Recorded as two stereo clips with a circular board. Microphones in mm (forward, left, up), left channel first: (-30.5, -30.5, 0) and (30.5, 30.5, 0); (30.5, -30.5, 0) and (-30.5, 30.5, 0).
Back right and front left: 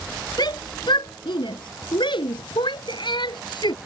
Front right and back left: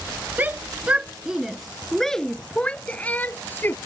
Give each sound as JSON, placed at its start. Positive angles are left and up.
{"t": 0.4, "sound": "a shout", "azimuth_deg": -160}